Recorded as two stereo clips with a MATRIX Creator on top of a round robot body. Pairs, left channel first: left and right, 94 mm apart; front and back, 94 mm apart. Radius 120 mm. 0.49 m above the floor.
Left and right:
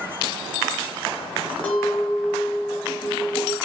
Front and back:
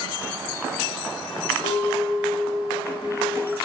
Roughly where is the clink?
Ahead.